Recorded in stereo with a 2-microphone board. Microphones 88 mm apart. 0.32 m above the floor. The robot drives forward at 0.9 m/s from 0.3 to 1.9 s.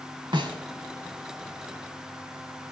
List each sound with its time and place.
0.3 s a snare drum: 70° right (ahead or behind), 1.0 m